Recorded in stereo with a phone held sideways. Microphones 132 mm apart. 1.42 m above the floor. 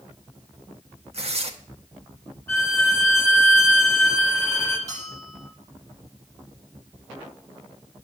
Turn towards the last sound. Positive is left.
turn(degrees=-60)  # may be behind; listen again after turning